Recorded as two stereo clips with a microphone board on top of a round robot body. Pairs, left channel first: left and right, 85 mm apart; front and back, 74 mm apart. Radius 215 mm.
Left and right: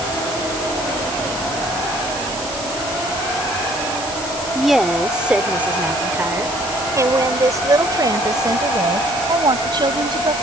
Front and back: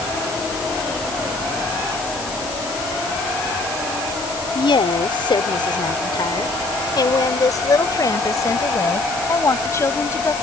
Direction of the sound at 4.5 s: Straight ahead.